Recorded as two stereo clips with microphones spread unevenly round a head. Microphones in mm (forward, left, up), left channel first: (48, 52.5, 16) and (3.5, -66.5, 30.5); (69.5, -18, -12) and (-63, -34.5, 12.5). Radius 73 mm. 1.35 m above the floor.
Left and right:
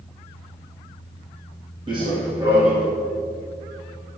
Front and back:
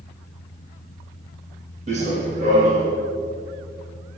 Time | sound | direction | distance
1.9 | running footsteps | 165° right | 3 m